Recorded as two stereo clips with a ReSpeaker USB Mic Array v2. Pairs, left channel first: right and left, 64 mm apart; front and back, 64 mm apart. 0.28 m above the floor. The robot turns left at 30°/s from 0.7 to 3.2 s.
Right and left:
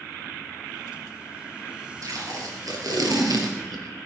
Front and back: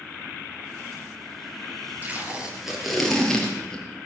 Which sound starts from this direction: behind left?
Tape being pulled, at 2.0 s.